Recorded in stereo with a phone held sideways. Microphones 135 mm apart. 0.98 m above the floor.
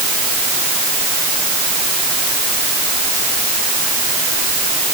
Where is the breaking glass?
No breaking glass in this recording.